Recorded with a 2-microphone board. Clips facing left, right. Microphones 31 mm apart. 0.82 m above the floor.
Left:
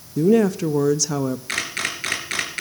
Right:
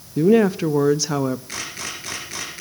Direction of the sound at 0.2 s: 25° right (ahead or behind).